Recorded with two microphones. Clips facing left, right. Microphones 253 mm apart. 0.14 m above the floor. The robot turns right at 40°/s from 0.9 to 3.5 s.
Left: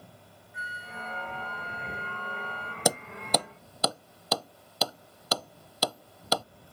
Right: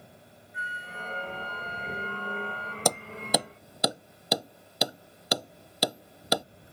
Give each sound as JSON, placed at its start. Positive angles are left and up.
{"t": 0.5, "sound": "a flute", "azimuth_deg": 60}
{"t": 2.9, "sound": "hammering", "side_deg": 10}